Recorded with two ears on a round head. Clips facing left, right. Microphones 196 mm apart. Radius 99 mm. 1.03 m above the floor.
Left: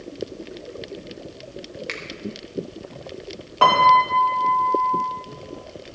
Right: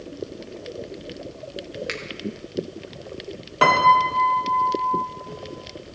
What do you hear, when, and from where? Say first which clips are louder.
1.9 s a finger snap: right 3 dB; 10° right (ahead or behind), 1.0 m
3.6 s a piano: left 1 dB; 25° right (ahead or behind), 1.5 m